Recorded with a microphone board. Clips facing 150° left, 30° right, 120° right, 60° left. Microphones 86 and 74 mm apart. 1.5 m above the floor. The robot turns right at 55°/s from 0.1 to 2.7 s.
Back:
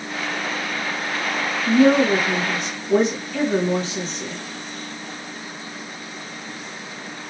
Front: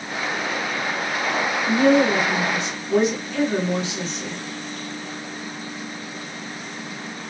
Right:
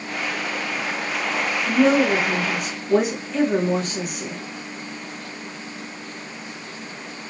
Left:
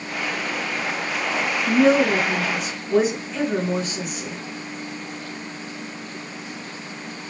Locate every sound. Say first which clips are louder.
1.7 s a woman speaking: back 2 dB, left 1 dB; 145° left, 1.8 m; by 4.3 s 155° right, 1.8 m